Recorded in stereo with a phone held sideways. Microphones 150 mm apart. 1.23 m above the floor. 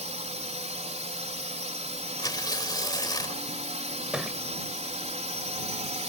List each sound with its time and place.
0.0 s a drone: 50° right (ahead or behind)
2.2 s tearing paper: 30° left (ahead or behind)
4.1 s a thud: 5° right (ahead or behind)